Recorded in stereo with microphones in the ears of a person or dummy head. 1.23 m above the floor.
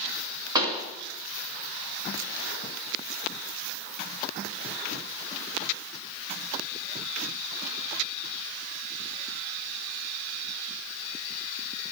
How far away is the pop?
About 1.9 m.